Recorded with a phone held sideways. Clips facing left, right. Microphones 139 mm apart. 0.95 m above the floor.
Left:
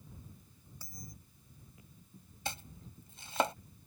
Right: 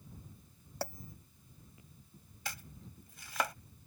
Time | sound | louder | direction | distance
0.8 | a bell | right 12 dB | 75° right (ahead or behind) | ?
2.5 | chopping | left 4 dB | 30° left (ahead or behind) | ?